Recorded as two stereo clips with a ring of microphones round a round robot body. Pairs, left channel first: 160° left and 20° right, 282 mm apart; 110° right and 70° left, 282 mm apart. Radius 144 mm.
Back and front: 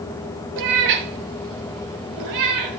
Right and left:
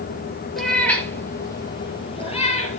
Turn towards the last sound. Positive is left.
turn(degrees=-45)